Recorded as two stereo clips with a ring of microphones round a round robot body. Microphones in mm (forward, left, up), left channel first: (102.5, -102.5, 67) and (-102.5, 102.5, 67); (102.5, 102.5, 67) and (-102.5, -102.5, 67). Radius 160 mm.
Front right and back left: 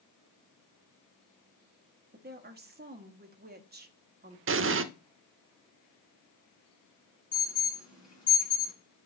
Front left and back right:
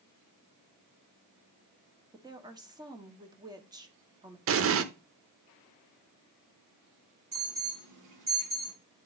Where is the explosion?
Straight behind, 0.8 m.